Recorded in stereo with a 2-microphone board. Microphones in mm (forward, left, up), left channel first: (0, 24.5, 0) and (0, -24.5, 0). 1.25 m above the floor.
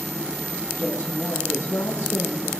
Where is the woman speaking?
65° left (ahead or behind), 2 m.